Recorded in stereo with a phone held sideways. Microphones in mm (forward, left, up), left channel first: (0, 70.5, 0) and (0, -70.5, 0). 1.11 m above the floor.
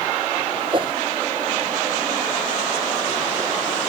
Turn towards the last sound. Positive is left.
turn(degrees=-35)  # may be behind; listen again after turning